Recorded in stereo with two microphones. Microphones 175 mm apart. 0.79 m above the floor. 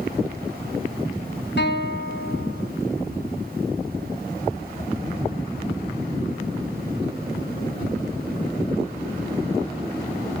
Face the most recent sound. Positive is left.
turn(degrees=80)